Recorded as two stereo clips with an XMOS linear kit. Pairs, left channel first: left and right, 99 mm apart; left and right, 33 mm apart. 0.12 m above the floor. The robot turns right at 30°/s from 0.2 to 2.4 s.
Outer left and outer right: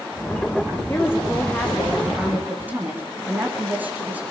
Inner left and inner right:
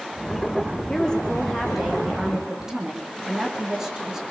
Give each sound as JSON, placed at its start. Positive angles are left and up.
{"t": 0.9, "sound": "a woman speaking", "azimuth_deg": 155, "distance_m": 8.5}